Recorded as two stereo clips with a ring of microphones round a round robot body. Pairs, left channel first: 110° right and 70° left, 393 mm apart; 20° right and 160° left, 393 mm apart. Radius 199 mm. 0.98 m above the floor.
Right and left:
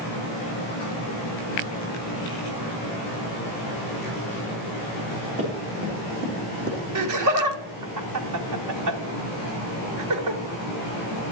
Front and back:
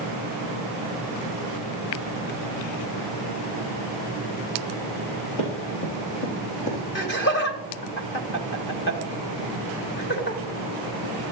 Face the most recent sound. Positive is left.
turn(degrees=35)